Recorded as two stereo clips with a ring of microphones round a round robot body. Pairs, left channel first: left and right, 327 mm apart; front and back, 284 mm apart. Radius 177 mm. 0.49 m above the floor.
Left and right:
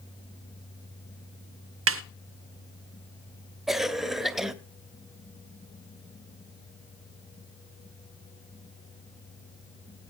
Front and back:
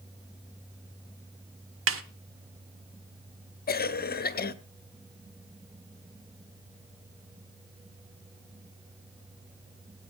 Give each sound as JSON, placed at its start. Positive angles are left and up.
{"t": 1.9, "sound": "a snare drum", "azimuth_deg": -140, "distance_m": 0.6}
{"t": 3.7, "sound": "a cough", "azimuth_deg": 0, "distance_m": 0.9}